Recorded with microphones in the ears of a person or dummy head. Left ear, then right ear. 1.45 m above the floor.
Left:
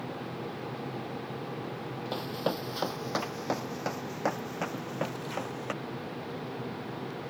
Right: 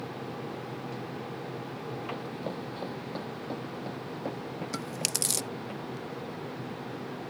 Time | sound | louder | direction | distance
2.1 | running footsteps | left 4 dB | 50° left (ahead or behind) | ?
4.7 | chewing | right 2 dB | 65° right (ahead or behind) | ?